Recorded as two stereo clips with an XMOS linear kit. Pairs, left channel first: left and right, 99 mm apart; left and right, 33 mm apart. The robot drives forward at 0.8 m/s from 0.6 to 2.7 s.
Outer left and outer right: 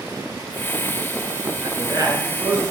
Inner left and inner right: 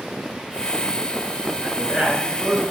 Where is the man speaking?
30° right (ahead or behind), 4 m; by 2.6 s 35° right (ahead or behind), 3.5 m.